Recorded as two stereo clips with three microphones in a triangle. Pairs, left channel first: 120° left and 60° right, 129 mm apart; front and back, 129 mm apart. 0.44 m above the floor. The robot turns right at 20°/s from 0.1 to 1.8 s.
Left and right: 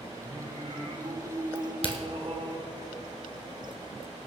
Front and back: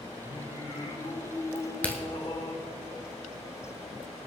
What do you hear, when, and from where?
0.2 s singing: 45° right, 3.5 m; by 2.5 s 15° right, 3.5 m
1.6 s a crack: 70° left, 1.7 m; by 2.0 s 75° left, 1.7 m